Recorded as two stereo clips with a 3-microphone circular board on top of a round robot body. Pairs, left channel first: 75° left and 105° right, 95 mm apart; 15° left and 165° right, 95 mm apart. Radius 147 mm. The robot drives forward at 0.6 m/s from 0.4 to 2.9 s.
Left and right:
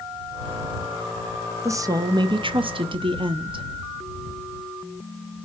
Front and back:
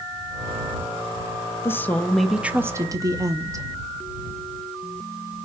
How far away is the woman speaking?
About 0.8 m.